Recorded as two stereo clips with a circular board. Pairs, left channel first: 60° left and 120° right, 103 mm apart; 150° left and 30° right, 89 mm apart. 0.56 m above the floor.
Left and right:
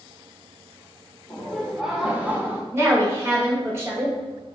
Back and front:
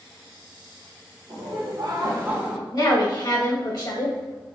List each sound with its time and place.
1.3 s laughter: 30° right, 1.5 m; by 2.6 s 120° right, 0.8 m
2.7 s a woman speaking: straight behind, 1.7 m